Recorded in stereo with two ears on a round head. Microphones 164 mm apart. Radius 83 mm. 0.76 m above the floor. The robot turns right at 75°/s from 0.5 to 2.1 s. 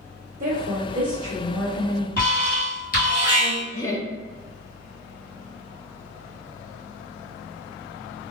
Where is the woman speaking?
80° right, 1.4 m; by 2.1 s 40° left, 1.4 m.